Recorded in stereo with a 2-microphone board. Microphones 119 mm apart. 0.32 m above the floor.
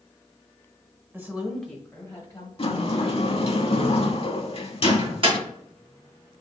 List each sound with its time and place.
1.1 s a woman speaking: 20° right (ahead or behind), 1.1 m; by 2.5 s 30° left (ahead or behind), 1.8 m
2.6 s a sliding door: 50° left (ahead or behind), 0.6 m
4.8 s a microwave: 45° right (ahead or behind), 2.5 m